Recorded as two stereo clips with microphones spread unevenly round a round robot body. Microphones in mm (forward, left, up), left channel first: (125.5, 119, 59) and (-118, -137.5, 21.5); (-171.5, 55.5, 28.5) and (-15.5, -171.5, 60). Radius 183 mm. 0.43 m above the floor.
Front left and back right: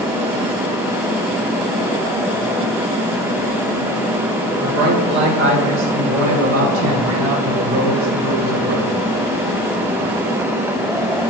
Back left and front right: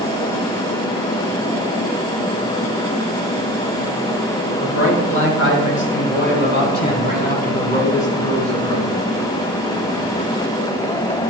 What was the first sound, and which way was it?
A man speaking, 165° left.